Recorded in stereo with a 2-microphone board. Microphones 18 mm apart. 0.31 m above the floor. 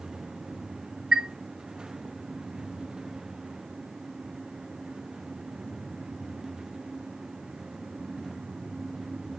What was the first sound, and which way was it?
A chime, 35° right (ahead or behind).